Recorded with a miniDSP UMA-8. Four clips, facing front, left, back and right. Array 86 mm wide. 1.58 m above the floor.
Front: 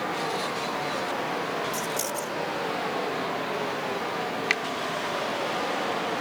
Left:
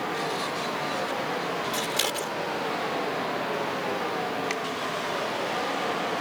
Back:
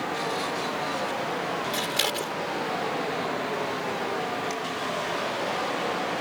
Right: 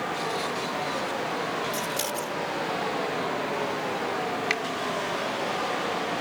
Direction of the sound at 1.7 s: 145° left.